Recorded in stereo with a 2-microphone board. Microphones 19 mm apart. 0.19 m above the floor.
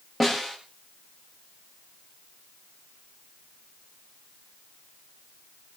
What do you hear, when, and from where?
0.2 s a snare drum: 10° left (ahead or behind), 8 m